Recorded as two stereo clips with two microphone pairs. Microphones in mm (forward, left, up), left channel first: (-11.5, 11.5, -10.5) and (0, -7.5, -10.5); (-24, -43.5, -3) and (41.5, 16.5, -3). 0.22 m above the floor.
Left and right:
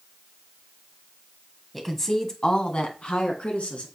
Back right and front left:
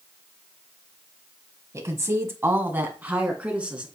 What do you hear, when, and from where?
1.7 s a woman speaking: 45° left, 1.4 m; by 3.9 s 120° left, 2.5 m